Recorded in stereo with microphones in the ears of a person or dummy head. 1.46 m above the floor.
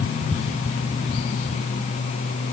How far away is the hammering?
I don't hear hammering.